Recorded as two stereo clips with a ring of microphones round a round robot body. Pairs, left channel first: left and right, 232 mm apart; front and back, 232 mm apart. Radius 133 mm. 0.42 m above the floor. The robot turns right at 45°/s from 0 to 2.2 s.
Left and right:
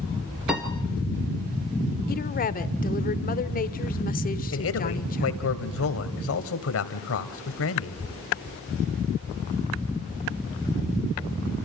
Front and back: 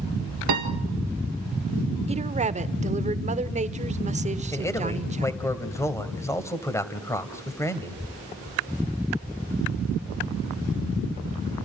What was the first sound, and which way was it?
A piano, straight behind.